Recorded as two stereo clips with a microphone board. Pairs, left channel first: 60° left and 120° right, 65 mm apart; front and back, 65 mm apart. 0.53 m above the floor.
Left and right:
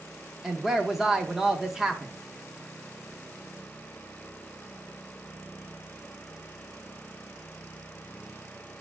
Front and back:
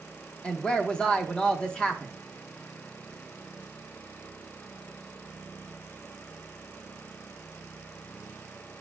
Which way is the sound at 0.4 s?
50° right.